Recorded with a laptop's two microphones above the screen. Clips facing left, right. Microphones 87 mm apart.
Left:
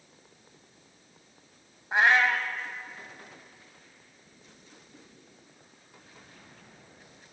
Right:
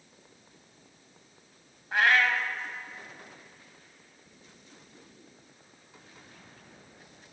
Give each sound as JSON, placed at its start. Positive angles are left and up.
{"t": 1.9, "sound": "a cat meowing", "side_deg": 20, "distance_m": 0.9}